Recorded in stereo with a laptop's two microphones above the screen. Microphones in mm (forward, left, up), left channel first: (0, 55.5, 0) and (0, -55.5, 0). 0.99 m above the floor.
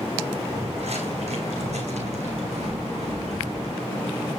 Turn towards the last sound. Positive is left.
turn(degrees=-75)  # may be behind; listen again after turning